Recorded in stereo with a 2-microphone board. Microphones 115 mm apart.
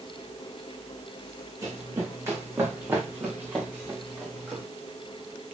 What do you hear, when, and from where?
1.6 s running footsteps: 30° right (ahead or behind), 4.5 m; by 4.6 s 10° right (ahead or behind), 5 m